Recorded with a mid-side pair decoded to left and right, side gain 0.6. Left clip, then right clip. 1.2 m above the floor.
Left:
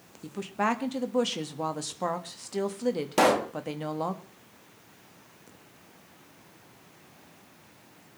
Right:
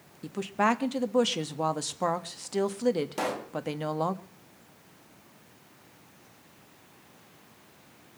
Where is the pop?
45° left, 0.5 m.